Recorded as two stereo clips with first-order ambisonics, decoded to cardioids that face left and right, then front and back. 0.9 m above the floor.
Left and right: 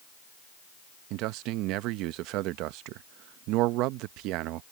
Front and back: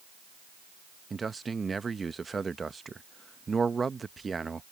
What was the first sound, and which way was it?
A man speaking, 105° right.